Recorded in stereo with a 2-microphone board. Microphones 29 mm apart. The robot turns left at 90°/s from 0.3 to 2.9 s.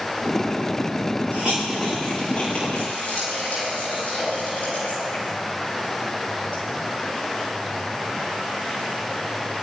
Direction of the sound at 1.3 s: 55° right (ahead or behind).